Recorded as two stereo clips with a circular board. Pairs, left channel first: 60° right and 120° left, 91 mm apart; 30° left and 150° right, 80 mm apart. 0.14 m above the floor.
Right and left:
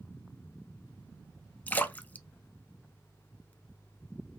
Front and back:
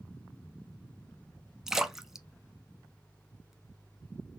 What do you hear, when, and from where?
1.7 s a splash: 80° right, 0.5 m